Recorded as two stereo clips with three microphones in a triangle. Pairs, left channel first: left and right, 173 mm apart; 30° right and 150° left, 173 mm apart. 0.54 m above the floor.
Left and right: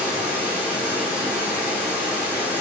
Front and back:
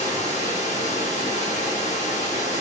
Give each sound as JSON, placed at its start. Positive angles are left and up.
{"t": 0.0, "sound": "running water", "azimuth_deg": -10, "distance_m": 1.4}